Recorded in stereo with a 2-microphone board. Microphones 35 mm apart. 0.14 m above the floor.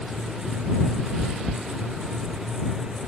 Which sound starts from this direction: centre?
Chewing, at 1.2 s.